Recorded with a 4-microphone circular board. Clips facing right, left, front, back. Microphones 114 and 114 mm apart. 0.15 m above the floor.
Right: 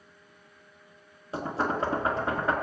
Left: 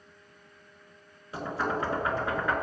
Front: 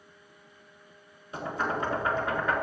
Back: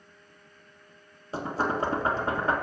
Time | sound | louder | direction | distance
1.3 | knocking | right 2 dB, back 2 dB | 140° right | 1.7 m